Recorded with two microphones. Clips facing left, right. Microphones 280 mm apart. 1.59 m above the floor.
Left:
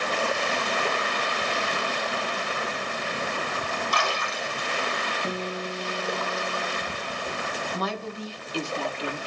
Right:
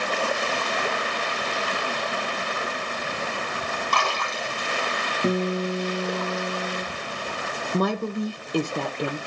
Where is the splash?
65° right (ahead or behind), 4 m.